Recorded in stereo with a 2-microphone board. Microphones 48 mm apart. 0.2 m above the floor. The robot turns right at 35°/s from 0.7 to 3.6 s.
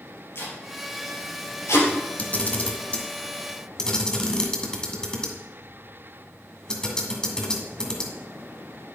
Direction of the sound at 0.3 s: 55° left (ahead or behind).